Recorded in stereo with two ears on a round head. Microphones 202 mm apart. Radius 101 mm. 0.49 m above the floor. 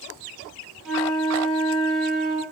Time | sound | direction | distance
0.8 | a flute | centre (ahead or behind) | 1.7 m